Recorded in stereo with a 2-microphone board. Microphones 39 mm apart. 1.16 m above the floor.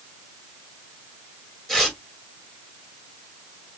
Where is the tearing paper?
10° left (ahead or behind), 2 m.